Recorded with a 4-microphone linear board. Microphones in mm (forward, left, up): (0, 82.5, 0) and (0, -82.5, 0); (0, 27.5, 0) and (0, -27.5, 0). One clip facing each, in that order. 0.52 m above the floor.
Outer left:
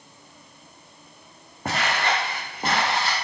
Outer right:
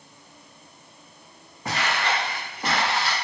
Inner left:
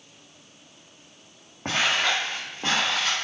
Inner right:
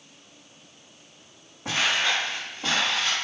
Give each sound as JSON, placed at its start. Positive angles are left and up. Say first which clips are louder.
{"t": 1.6, "sound": "footsteps", "louder": "outer left 1 dB, inner left 1 dB", "side_deg": 50, "distance_m": 1.4}